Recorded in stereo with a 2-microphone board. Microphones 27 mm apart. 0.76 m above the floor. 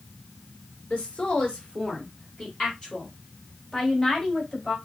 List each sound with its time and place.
0.9 s a woman speaking: 50° left (ahead or behind), 2 m; by 4.8 s 25° left (ahead or behind), 3.5 m